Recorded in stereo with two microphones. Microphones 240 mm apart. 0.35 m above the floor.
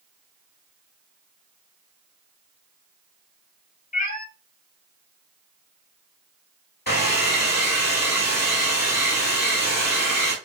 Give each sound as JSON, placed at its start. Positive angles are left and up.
{"t": 3.9, "sound": "a cat meowing", "side_deg": 35, "distance_m": 1.4}
{"t": 6.9, "sound": "a hair dryer", "side_deg": 40, "distance_m": 2.5}